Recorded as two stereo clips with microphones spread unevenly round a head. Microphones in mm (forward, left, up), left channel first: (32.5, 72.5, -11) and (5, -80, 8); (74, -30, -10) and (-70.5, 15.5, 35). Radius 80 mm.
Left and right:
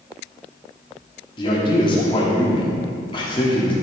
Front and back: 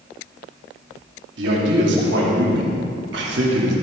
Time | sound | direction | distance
1.4 | a man speaking | 140° left | 3 m